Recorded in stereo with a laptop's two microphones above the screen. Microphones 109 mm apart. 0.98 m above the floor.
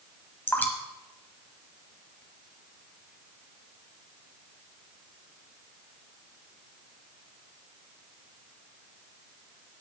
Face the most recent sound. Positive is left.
turn(degrees=20)  # may be behind; listen again after turning